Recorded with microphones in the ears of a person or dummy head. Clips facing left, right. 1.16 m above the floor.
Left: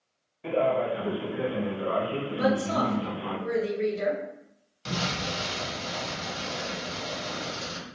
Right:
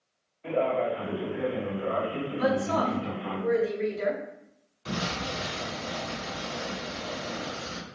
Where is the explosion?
60° left (ahead or behind), 1.8 m.